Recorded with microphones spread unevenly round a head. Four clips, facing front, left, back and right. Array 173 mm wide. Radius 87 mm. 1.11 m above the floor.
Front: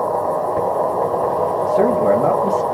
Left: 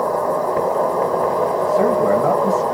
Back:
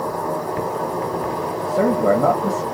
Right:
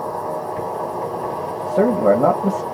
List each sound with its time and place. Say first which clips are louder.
0.0 s an insect: left 6 dB, front 5 dB; 55° left, 1.3 m
1.7 s a man speaking: right 3 dB, front 1 dB; 105° right, 1.4 m